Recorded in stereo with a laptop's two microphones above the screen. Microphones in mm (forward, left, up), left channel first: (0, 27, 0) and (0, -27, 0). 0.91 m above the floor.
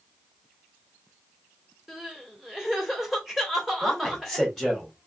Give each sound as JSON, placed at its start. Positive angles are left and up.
{"t": 1.9, "sound": "crying", "side_deg": -5, "distance_m": 1.7}
{"t": 3.8, "sound": "a man speaking", "side_deg": 0, "distance_m": 2.5}